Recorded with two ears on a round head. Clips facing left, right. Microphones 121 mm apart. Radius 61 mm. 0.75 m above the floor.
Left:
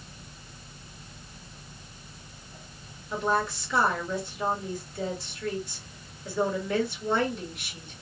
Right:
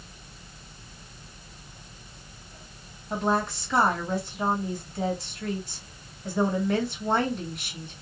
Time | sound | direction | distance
3.1 | a woman speaking | 40° right (ahead or behind) | 1.7 m